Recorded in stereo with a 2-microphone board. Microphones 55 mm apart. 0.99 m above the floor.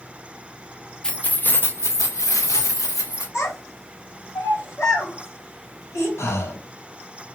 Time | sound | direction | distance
1.0 | keys jangling | 15° left (ahead or behind) | 0.6 m
3.3 | a child speaking | 55° left (ahead or behind) | 1.8 m
6.2 | breathing | 60° left (ahead or behind) | 0.5 m